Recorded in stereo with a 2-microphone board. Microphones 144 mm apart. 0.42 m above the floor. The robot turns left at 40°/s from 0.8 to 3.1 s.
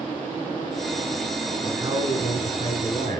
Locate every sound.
1.6 s a man speaking: 15° right, 4 m; by 3.2 s 70° right, 4 m